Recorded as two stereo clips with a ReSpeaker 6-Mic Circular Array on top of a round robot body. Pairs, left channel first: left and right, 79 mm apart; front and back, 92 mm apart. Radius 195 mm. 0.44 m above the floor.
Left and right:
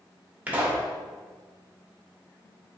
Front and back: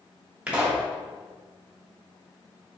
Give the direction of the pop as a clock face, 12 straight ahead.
4 o'clock.